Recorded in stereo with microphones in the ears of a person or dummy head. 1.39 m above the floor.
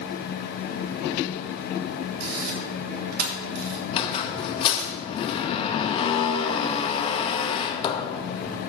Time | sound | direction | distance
2.2 | a camera shutter | 60° right (ahead or behind) | 2.5 m
3.9 | a squeak | 35° left (ahead or behind) | 1.0 m